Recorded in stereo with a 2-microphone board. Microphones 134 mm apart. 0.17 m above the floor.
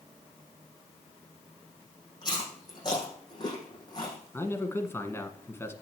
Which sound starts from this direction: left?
Chewing, at 2.2 s.